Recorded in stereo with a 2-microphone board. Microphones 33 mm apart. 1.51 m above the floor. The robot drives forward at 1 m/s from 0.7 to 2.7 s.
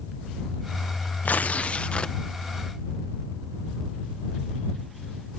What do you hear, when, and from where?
1.2 s tearing paper: 60° left (ahead or behind); by 2.2 s 35° left (ahead or behind)